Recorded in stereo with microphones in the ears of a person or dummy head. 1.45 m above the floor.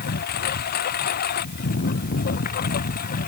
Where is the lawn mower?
55° left (ahead or behind); by 3.3 s 50° left (ahead or behind).